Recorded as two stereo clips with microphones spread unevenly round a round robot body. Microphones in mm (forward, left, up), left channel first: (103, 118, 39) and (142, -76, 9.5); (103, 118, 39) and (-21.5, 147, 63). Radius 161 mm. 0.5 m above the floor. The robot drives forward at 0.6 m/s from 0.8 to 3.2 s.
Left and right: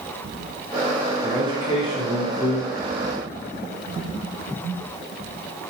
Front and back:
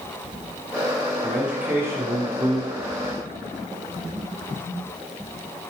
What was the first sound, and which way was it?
A man speaking, 45° left.